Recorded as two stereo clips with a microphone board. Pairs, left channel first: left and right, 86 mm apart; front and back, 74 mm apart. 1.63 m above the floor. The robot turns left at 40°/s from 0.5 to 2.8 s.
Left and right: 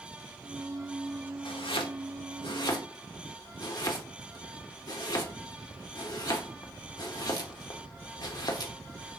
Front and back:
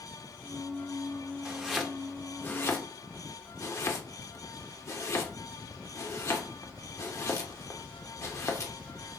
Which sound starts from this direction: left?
Chopping, at 1.4 s.